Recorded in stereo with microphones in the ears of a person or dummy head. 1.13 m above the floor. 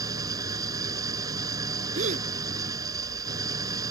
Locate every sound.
0.0 s an engine running: 25° right (ahead or behind)
1.9 s a gasp: 45° right (ahead or behind)